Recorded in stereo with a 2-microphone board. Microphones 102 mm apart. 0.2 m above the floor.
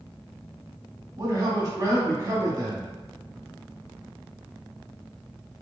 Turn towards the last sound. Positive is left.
turn(degrees=-30)  # may be behind; listen again after turning